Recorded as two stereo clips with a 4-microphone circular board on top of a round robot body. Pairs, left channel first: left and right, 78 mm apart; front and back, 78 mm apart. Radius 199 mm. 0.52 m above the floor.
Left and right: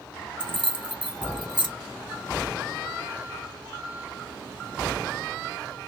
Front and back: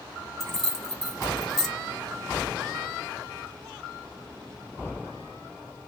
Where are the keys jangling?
85° right, 1.4 m.